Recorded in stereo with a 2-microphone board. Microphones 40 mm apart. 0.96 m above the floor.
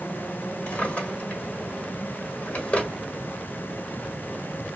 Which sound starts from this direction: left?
A drawer, at 0.7 s.